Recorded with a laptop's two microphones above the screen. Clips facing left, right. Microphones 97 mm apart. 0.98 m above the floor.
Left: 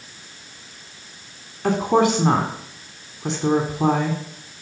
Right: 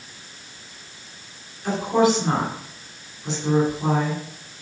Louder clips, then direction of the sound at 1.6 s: Left 1 dB; 75° left (ahead or behind).